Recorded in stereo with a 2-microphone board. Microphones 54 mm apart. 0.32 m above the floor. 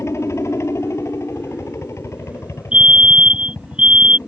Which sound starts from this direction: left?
A helicopter, at 0.0 s.